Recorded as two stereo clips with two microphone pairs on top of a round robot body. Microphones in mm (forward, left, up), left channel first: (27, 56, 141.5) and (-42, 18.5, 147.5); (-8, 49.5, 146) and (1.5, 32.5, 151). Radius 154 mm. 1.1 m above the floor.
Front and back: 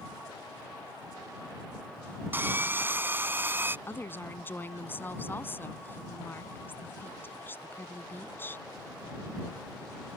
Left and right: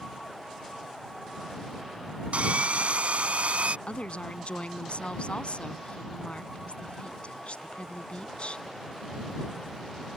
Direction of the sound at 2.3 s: 85° right.